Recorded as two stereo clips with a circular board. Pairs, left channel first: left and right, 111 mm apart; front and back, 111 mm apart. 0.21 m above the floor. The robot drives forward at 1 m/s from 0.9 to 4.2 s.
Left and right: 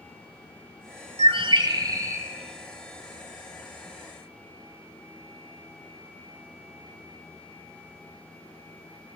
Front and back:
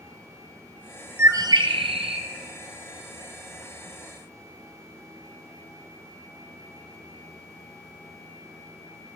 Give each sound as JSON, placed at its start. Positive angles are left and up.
{"t": 1.2, "sound": "a bird", "azimuth_deg": -110, "distance_m": 0.7}